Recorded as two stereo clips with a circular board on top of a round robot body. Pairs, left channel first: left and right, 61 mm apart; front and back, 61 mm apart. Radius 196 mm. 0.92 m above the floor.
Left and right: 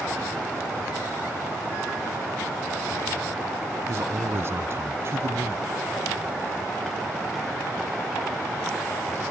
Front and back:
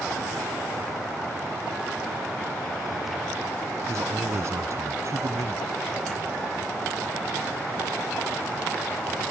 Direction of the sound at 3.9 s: 140° right.